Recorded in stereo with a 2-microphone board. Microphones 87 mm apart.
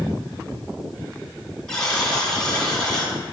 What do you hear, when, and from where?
1.7 s a buzzer: 5° left (ahead or behind), 2.5 m